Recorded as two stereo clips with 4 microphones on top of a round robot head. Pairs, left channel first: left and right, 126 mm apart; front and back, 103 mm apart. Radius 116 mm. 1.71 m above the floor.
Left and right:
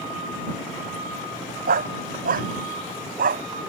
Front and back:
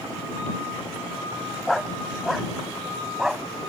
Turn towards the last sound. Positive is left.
turn(degrees=-95)